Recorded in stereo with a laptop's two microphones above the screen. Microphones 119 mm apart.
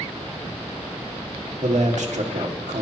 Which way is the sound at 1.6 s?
85° right.